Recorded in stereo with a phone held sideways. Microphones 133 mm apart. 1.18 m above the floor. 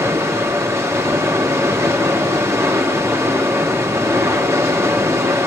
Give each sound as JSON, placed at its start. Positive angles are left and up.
{"t": 0.0, "sound": "running water", "side_deg": -20, "distance_m": 2.0}